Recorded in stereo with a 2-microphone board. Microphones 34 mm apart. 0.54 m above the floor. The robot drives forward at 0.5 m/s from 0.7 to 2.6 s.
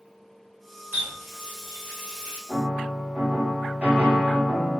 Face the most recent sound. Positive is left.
turn(degrees=-35)  # may be behind; listen again after turning